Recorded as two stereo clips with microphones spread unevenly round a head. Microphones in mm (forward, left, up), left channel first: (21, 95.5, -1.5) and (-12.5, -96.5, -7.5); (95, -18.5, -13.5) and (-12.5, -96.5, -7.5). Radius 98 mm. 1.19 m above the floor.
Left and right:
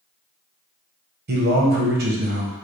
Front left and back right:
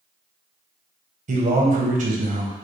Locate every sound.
1.3 s a man speaking: 130° right, 0.8 m